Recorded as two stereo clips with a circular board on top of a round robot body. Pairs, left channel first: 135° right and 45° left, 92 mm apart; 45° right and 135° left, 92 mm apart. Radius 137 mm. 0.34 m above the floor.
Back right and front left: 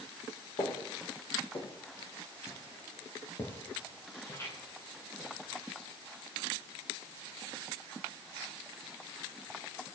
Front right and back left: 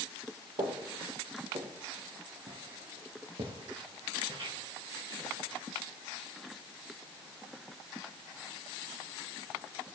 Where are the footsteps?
170° left, 1.7 m; by 5.6 s 165° left, 5 m.